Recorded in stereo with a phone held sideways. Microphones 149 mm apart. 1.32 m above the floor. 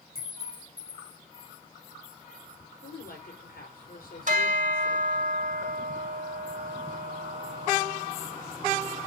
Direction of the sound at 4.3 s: 55° right (ahead or behind).